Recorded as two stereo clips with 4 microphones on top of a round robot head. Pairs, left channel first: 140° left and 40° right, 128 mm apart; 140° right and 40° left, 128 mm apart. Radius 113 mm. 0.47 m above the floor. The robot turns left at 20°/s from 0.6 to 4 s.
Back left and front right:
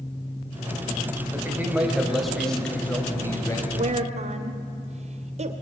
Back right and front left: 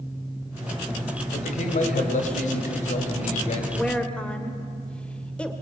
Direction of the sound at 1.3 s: 115° right.